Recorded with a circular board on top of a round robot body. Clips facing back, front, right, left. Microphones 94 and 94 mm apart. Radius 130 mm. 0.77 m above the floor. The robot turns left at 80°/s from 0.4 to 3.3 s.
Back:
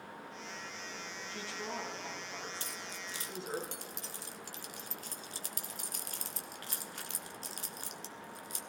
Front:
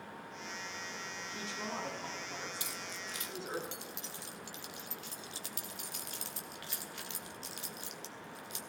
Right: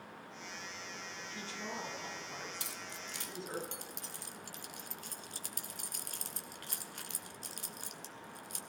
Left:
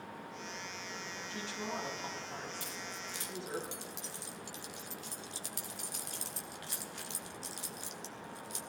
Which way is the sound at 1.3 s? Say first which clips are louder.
Even, left 4 dB; 85° left.